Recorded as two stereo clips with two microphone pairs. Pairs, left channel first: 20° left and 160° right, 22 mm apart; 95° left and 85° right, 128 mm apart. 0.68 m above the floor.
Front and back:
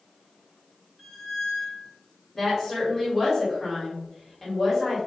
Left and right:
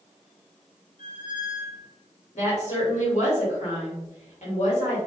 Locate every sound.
1.0 s a squeak: 95° left, 1.7 m
2.3 s a woman speaking: 95° left, 1.7 m